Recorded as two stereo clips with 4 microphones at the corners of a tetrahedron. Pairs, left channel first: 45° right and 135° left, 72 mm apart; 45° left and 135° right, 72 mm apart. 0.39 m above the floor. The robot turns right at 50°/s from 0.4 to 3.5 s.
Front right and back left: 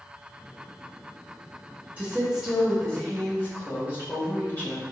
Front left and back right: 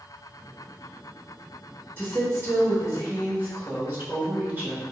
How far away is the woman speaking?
About 1.5 m.